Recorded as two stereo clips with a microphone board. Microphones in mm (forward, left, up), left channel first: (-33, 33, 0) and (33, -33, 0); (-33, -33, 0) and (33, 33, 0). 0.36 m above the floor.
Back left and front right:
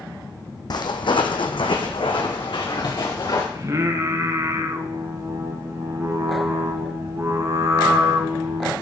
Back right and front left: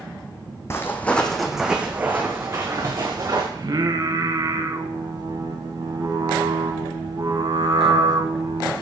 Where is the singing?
5° left, 0.7 m.